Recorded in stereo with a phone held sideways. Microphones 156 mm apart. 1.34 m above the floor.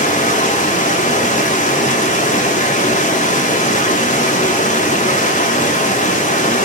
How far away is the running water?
About 2.5 m.